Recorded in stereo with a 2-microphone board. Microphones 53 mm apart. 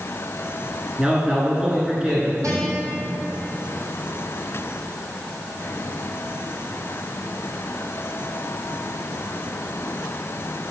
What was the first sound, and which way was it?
A man speaking, 20° right (ahead or behind).